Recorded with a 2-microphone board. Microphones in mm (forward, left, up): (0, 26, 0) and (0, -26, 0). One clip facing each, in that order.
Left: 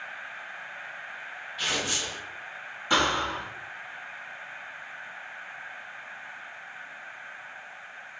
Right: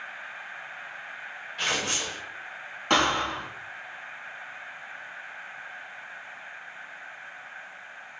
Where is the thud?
65° right (ahead or behind), 0.9 m.